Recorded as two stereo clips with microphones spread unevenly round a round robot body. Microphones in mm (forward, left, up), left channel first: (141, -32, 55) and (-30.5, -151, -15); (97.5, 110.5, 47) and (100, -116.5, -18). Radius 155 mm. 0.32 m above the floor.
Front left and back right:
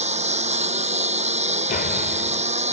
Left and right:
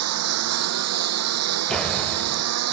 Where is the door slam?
20° right.